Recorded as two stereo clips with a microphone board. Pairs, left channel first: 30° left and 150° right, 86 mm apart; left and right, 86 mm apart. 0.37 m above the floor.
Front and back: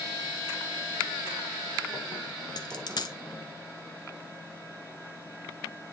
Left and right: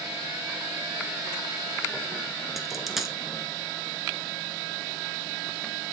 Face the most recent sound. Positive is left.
turn(degrees=-5)